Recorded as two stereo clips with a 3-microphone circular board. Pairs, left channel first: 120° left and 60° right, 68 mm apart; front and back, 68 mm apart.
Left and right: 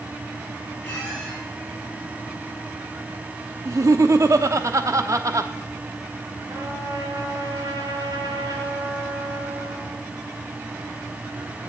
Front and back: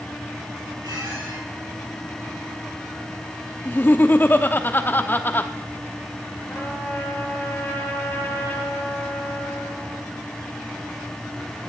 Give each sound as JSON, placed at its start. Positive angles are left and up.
{"t": 0.8, "sound": "a squeak", "azimuth_deg": -175, "distance_m": 6.5}
{"t": 3.6, "sound": "laughter", "azimuth_deg": -50, "distance_m": 0.9}
{"t": 6.5, "sound": "a trumpet", "azimuth_deg": -65, "distance_m": 3.5}